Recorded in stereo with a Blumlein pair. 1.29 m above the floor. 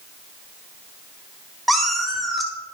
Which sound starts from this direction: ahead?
A cat meowing, at 1.7 s.